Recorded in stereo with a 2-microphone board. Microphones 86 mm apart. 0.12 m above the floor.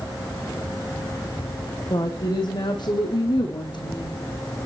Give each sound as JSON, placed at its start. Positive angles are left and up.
{"t": 1.9, "sound": "a woman speaking", "side_deg": 55, "distance_m": 7.0}